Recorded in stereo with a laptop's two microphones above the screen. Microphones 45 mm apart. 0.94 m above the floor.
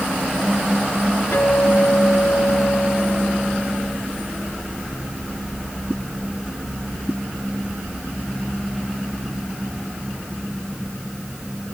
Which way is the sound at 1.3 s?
65° left (ahead or behind).